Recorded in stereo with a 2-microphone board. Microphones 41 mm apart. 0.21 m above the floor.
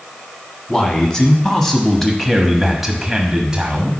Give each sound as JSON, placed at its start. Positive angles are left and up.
{"t": 0.7, "sound": "a man speaking", "side_deg": 25, "distance_m": 1.5}